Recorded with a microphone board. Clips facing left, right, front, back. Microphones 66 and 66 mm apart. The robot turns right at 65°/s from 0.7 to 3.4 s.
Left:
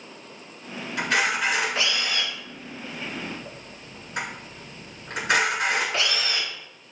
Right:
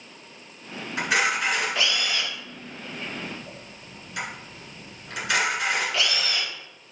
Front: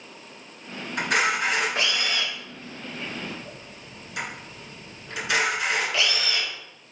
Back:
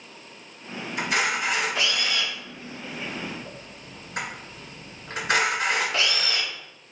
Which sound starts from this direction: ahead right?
A camera shutter, at 1.0 s.